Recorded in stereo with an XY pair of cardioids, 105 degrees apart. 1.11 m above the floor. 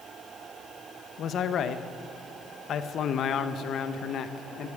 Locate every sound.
1.2 s a man speaking: 65° left, 1.0 m